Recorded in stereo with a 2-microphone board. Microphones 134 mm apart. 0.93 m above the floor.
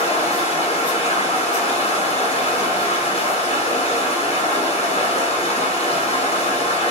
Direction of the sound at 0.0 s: 50° left (ahead or behind).